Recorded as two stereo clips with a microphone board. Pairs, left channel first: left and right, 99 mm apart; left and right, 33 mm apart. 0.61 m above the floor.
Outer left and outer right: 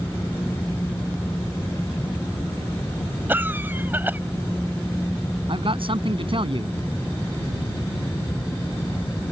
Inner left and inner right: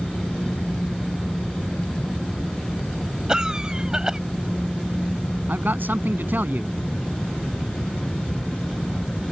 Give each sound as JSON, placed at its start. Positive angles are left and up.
{"t": 3.3, "sound": "a cough", "side_deg": -20}
{"t": 5.5, "sound": "a man speaking", "side_deg": -65}